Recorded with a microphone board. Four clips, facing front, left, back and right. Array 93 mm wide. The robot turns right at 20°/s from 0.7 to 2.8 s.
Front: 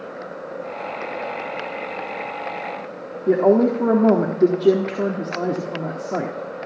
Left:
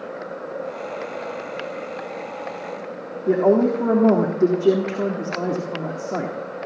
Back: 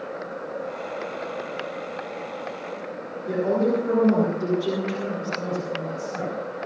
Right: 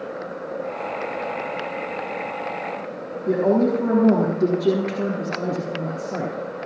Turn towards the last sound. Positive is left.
turn(degrees=25)